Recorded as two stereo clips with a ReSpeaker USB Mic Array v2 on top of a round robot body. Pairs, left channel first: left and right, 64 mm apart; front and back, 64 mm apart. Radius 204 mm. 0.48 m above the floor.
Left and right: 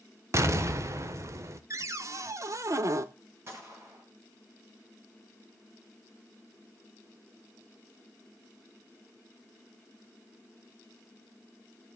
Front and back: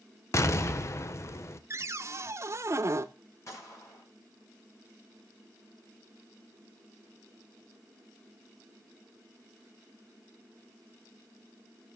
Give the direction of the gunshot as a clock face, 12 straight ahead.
1 o'clock.